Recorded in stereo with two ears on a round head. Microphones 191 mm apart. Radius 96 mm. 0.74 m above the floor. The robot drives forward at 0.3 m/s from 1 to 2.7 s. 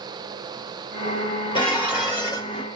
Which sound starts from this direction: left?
Dishes clattering, at 1.6 s.